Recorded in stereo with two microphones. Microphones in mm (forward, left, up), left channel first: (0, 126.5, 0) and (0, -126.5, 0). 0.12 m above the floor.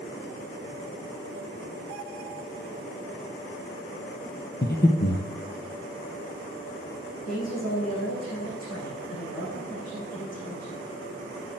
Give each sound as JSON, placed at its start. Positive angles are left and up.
{"t": 4.6, "sound": "breathing", "side_deg": 40, "distance_m": 1.5}
{"t": 7.2, "sound": "a woman speaking", "side_deg": 75, "distance_m": 7.0}